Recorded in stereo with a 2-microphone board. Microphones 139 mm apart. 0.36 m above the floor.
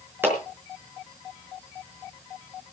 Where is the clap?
15° right (ahead or behind), 5 m.